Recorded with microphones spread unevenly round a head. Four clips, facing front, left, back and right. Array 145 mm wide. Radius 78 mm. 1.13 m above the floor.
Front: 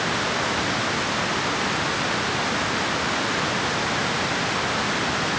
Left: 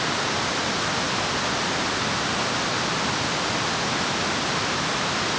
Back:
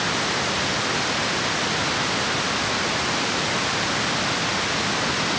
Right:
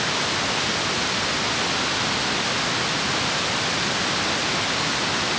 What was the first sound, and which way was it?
Only background noise.